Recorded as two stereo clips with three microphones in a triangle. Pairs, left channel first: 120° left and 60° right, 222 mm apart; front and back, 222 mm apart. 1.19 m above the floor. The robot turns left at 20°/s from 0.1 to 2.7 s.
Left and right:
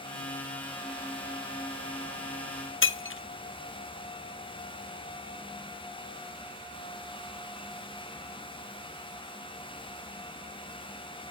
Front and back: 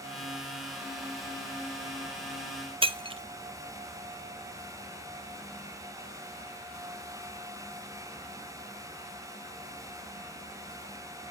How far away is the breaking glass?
About 0.6 m.